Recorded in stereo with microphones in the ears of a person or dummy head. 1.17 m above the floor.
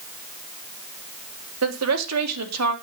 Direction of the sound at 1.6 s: 70° right (ahead or behind).